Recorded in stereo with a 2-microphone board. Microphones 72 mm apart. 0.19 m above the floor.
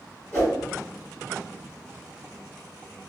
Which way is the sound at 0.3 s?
20° left (ahead or behind).